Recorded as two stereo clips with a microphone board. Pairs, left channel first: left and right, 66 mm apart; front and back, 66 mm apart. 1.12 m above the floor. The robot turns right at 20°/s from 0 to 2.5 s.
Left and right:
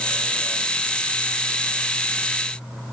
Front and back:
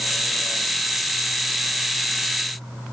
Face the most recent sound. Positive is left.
No sound to turn to.